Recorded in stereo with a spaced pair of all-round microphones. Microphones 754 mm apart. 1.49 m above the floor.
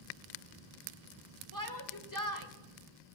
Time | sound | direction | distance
1.5 | a shout | 25° left (ahead or behind) | 1.7 m